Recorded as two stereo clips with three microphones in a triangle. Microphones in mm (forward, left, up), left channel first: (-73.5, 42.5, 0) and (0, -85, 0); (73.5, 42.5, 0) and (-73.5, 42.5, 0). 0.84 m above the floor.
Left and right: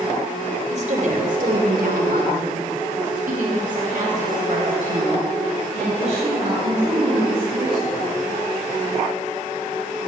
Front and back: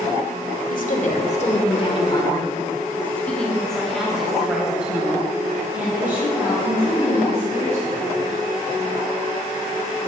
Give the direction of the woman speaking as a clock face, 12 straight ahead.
1 o'clock.